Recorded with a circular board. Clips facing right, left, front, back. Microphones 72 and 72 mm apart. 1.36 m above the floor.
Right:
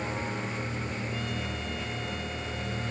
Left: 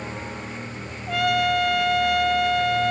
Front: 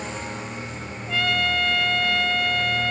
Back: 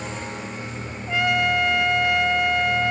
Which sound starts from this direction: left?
A trumpet, at 1.1 s.